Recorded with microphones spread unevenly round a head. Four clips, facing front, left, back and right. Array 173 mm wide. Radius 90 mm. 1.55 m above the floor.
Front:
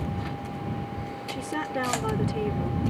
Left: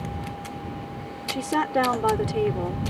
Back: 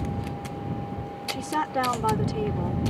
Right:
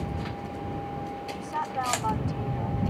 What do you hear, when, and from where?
1.3 s a woman speaking: 105° left